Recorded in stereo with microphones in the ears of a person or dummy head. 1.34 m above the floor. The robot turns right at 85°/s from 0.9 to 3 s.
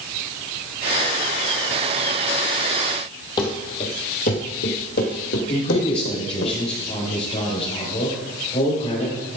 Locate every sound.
3.4 s running footsteps: 20° left (ahead or behind), 1.7 m; by 6.5 s 65° left (ahead or behind), 3 m
5.5 s a man speaking: 35° left (ahead or behind), 4.5 m